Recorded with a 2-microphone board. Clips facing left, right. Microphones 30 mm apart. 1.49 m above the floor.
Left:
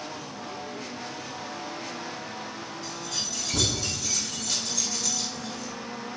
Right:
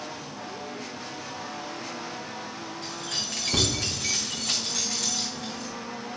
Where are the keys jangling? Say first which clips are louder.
Right 1 dB; 85° right, 5.5 m.